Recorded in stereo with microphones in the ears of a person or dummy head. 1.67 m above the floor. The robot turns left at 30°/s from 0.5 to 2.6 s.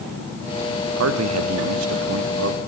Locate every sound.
1.0 s a man speaking: 75° right, 1.0 m; by 2.6 s 125° right, 1.0 m